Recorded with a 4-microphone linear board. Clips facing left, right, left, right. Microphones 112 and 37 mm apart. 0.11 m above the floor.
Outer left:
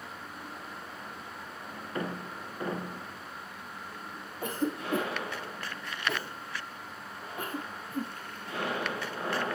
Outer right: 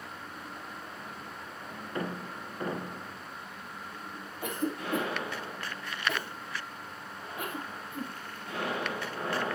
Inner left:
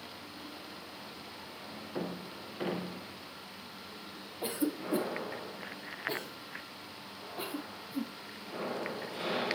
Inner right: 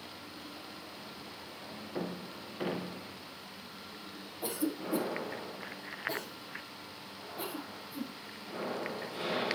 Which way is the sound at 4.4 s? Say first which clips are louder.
Outer left 1 dB, inner left 1 dB; 35° left (ahead or behind).